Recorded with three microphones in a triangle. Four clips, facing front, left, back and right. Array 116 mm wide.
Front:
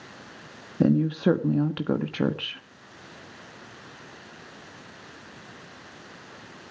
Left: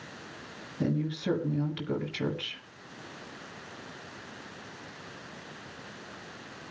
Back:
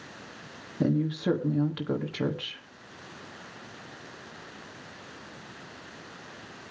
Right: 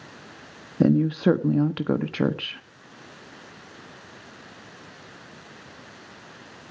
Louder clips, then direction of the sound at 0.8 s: Right 11 dB, front 5 dB; 65° right.